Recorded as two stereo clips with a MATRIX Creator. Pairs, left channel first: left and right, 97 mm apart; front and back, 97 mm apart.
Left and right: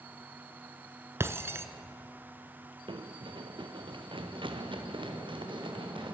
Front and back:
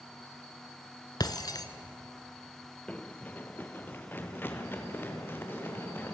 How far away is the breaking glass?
About 1.2 m.